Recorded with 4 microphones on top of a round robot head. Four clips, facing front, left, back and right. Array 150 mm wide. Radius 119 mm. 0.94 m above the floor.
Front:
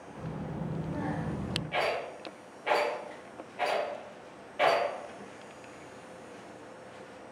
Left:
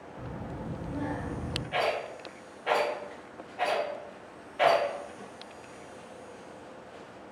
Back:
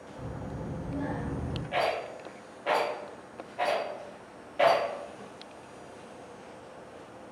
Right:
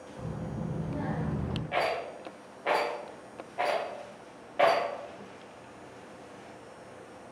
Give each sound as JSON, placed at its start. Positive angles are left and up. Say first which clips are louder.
{"t": 0.1, "sound": "a child speaking", "louder": "right 2 dB, front 1 dB", "azimuth_deg": 0, "distance_m": 1.0}
{"t": 1.7, "sound": "a rattle", "louder": "left 1 dB, back 2 dB", "azimuth_deg": -105, "distance_m": 0.6}